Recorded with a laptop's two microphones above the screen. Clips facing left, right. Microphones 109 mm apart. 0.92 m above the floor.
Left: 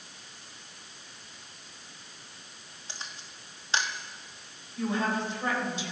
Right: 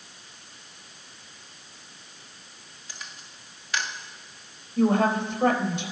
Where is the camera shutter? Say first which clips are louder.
Even; 30° left (ahead or behind), 1.6 m.